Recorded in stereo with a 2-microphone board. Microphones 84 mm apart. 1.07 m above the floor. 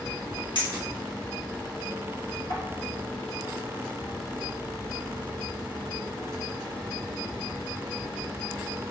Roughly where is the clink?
Left.